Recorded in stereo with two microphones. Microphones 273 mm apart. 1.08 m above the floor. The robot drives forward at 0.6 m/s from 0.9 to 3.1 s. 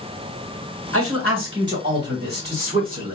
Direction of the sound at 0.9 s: 50° right (ahead or behind).